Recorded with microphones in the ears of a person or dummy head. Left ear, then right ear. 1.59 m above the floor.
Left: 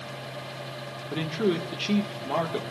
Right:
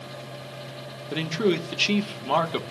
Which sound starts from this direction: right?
A man speaking, at 1.1 s.